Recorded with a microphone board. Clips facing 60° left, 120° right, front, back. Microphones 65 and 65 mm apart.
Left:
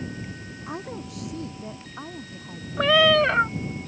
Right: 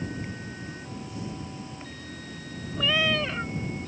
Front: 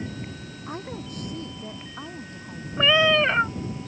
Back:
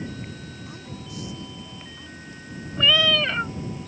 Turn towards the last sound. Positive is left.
turn(degrees=60)